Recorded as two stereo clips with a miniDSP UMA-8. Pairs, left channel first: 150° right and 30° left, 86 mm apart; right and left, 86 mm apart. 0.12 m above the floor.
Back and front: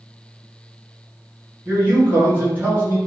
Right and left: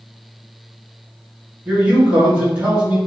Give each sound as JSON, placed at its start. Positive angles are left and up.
{"t": 1.6, "sound": "a man speaking", "azimuth_deg": 40, "distance_m": 1.5}